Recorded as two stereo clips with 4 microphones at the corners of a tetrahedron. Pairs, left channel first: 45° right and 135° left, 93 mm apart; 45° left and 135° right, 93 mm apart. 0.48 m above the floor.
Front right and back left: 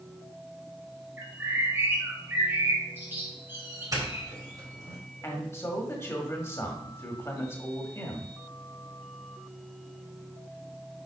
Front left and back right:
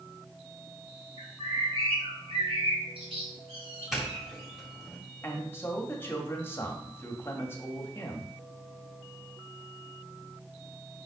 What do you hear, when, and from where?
1.2 s a bird: 155° right, 2.5 m
3.9 s a doorbell: 140° left, 2.5 m
5.2 s a man speaking: 5° right, 1.4 m